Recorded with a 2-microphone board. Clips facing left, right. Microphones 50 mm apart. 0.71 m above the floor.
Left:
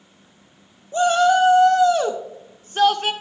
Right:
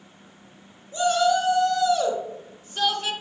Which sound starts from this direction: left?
A shout, at 0.9 s.